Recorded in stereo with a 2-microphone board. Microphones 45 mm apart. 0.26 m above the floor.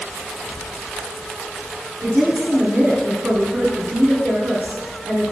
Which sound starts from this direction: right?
A woman speaking, at 2.0 s.